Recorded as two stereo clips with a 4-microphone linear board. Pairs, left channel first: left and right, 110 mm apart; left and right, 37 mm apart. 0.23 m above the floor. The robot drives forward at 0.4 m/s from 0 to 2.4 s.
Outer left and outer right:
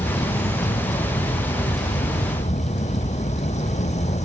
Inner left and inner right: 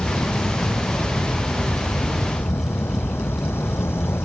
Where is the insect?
75° left (ahead or behind); by 4.2 s 85° left.